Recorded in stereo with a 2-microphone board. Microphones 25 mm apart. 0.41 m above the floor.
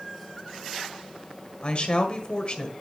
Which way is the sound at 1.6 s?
35° left (ahead or behind).